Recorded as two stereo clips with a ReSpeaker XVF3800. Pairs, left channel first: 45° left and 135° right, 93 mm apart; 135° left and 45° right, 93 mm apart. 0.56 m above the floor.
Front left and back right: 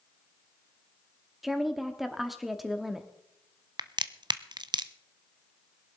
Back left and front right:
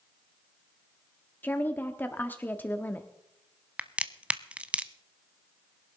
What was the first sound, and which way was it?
A woman speaking, 140° left.